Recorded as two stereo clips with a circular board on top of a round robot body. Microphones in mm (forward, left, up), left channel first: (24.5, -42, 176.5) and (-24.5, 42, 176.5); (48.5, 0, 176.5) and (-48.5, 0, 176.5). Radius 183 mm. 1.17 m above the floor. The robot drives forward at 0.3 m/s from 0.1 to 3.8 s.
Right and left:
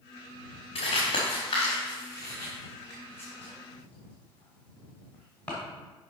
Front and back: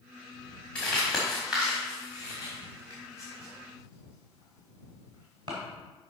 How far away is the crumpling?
About 1.2 m.